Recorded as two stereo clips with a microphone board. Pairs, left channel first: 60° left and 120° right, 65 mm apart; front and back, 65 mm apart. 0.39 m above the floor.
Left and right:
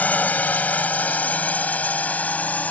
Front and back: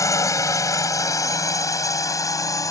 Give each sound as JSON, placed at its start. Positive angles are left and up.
{"t": 0.0, "sound": "a drone", "azimuth_deg": 0}